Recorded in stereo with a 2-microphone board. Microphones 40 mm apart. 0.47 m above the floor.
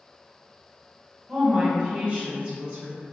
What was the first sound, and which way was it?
A woman speaking, 25° right (ahead or behind).